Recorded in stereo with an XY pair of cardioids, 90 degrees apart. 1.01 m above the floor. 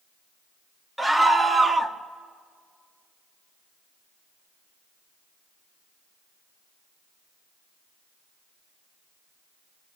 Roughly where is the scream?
Ahead.